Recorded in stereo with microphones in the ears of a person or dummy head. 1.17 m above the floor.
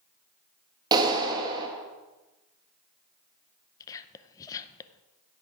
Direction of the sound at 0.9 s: 25° right (ahead or behind).